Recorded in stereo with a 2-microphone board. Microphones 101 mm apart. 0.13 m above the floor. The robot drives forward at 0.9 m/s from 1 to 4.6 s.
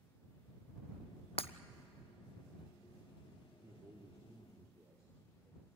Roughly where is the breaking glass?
Left.